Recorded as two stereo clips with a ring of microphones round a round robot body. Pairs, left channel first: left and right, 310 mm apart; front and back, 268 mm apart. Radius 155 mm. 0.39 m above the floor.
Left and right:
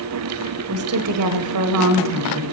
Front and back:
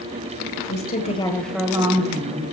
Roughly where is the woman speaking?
Ahead right.